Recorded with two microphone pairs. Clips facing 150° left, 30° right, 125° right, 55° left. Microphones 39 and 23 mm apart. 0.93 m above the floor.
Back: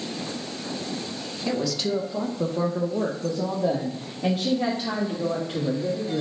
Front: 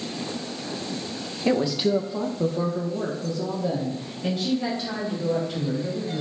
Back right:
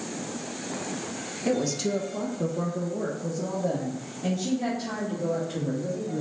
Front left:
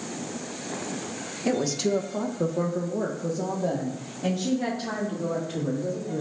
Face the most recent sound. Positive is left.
turn(degrees=115)